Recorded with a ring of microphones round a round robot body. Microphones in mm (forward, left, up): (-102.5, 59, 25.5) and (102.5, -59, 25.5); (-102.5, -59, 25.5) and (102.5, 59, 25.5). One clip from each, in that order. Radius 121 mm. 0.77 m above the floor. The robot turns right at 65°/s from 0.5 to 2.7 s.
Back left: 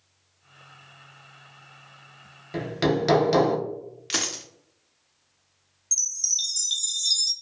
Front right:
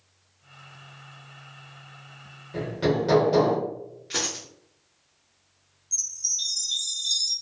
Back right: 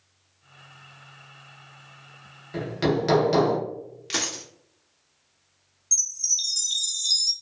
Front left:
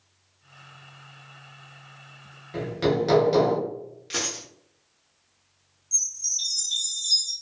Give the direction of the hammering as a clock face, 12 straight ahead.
8 o'clock.